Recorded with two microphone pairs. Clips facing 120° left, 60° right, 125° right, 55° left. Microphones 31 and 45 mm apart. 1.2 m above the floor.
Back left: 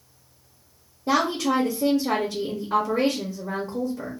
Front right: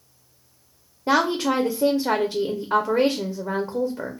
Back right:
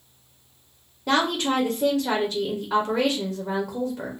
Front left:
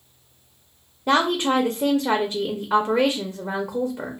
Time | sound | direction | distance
1.1 | a woman speaking | 20° right | 0.5 m